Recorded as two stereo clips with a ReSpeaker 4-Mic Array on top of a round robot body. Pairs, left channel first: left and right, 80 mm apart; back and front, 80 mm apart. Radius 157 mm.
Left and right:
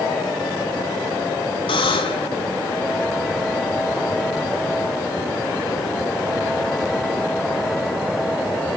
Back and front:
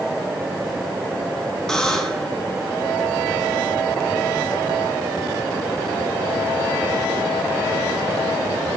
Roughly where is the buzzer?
Left.